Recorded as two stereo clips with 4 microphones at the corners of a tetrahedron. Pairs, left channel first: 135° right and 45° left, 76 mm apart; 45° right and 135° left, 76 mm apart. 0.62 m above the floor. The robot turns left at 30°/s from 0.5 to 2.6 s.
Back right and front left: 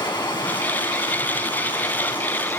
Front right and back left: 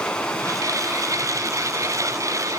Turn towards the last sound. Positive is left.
turn(degrees=175)